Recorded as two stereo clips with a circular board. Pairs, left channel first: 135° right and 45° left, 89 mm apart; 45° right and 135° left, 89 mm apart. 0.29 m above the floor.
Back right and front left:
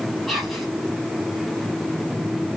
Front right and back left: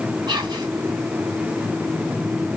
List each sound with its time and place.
0.3 s whispering: 135° left, 1.7 m